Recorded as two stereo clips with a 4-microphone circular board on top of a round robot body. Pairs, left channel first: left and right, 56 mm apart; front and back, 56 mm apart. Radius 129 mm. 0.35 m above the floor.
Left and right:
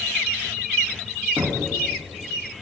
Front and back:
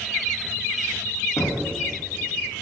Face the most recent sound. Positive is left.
turn(degrees=-35)